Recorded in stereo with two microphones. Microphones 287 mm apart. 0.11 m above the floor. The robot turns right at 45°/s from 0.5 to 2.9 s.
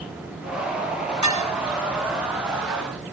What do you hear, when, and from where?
1.2 s dishes clattering: 75° right (ahead or behind), 4.5 m; by 1.4 s 80° right, 4.5 m